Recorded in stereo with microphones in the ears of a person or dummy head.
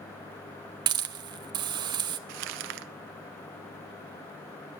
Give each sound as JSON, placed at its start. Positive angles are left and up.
{"t": 0.9, "sound": "a hiss", "side_deg": -25, "distance_m": 0.7}
{"t": 2.3, "sound": "crumpling", "side_deg": -65, "distance_m": 0.6}